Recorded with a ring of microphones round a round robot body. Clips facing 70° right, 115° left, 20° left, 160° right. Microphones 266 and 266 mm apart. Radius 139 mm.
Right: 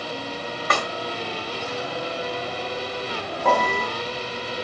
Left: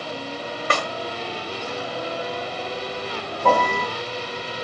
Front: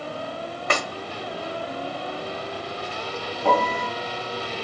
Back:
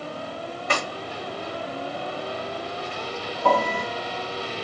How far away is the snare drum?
About 0.9 m.